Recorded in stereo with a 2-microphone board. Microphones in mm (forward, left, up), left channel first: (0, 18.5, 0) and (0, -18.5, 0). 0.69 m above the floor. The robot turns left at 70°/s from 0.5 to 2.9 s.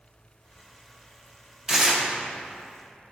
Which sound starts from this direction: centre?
Tearing paper, at 1.7 s.